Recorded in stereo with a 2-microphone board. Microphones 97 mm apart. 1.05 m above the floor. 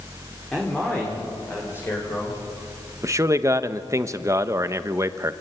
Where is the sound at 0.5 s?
10° left (ahead or behind), 3.5 m; by 2.4 s 30° left (ahead or behind), 5 m.